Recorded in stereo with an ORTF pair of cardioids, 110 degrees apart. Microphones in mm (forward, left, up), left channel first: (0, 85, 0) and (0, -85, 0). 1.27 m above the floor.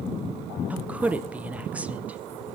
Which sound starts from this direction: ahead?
A woman speaking, at 0.7 s.